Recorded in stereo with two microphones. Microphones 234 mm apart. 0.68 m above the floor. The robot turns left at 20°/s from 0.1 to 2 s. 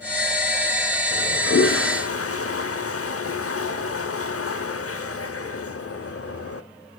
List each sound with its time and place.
1.1 s a toilet flushing: 60° left (ahead or behind), 0.9 m; by 6.6 s 75° left (ahead or behind), 0.9 m